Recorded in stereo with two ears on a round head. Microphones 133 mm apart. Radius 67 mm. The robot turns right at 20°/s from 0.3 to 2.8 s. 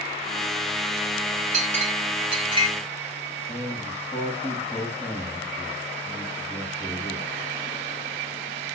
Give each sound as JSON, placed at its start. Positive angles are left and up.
{"t": 1.5, "sound": "a clink", "side_deg": -55, "distance_m": 3.0}
{"t": 3.5, "sound": "a man speaking", "side_deg": 15, "distance_m": 6.5}